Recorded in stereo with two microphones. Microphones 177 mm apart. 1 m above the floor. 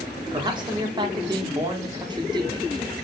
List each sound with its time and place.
0.3 s a man speaking: 25° right (ahead or behind), 0.7 m